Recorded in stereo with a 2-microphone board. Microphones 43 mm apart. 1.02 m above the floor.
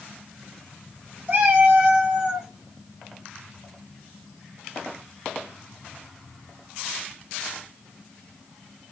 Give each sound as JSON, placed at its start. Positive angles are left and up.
{"t": 1.3, "sound": "a cat meowing", "side_deg": -45, "distance_m": 1.3}